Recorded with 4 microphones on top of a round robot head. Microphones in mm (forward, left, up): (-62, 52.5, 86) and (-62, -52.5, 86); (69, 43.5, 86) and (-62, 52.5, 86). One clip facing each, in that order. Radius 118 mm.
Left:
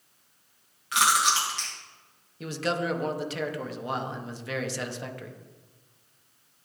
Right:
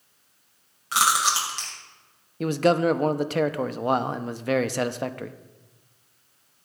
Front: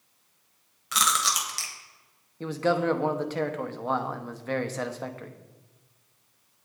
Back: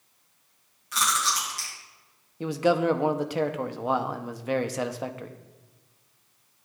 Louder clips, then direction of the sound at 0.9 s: Right 1 dB, even; 25° right.